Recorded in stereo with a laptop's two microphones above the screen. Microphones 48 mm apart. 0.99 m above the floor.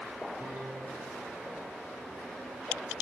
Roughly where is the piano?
Centre.